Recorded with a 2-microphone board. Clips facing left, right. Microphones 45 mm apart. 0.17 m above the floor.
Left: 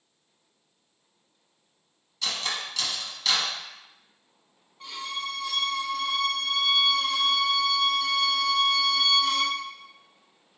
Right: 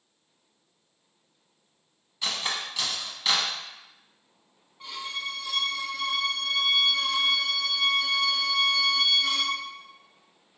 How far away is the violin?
About 0.8 m.